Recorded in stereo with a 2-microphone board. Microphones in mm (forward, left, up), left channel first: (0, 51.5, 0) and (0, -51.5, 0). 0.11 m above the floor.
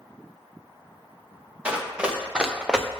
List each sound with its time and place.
1.6 s running footsteps: 10° right (ahead or behind), 2 m; by 2.9 s 5° right (ahead or behind), 0.9 m